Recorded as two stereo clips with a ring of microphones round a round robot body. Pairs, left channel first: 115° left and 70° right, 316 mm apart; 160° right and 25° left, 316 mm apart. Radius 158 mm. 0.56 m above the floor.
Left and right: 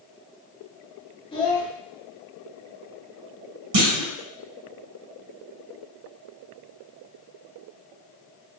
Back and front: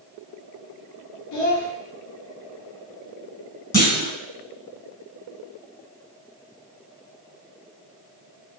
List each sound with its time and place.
1.3 s a child speaking: 175° right, 0.9 m
3.7 s a clunk: 75° right, 1.4 m